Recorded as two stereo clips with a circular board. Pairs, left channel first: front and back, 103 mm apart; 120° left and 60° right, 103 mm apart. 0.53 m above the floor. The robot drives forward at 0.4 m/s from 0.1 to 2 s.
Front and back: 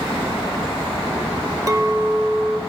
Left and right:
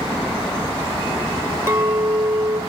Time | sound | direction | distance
1.7 | a clink | 125° right | 0.9 m